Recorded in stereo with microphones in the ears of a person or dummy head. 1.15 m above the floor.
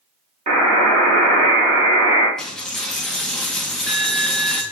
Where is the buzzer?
35° right (ahead or behind), 1.8 m.